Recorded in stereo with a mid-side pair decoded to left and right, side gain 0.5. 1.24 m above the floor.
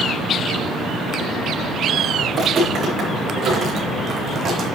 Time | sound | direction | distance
2.3 | footsteps | 45° right | 5.5 m